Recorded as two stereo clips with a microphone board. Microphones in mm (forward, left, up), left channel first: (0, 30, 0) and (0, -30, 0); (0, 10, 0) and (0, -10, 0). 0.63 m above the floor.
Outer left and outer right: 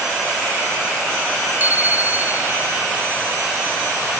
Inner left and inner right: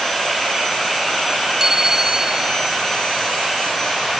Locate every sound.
1.6 s a bicycle bell: 30° right (ahead or behind)